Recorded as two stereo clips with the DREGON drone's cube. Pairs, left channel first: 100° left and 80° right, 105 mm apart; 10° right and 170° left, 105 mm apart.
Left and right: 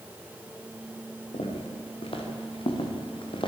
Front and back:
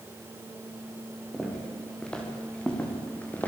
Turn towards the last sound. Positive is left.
turn(degrees=65)